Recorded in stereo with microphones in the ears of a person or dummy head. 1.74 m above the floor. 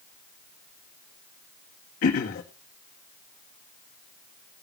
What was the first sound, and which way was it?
Throat clearing, 50° left (ahead or behind).